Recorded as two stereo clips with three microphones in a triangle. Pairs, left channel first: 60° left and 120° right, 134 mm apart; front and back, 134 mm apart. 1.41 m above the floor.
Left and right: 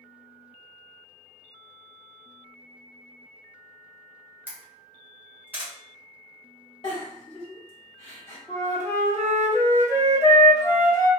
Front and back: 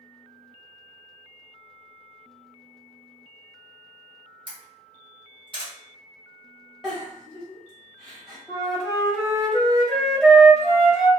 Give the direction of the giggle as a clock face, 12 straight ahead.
9 o'clock.